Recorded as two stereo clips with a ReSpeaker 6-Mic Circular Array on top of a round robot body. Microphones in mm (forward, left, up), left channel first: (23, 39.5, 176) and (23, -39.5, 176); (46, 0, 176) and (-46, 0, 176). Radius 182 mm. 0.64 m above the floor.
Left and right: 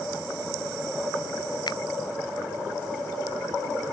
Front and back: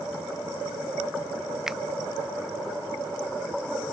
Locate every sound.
1.7 s a finger snap: 95° left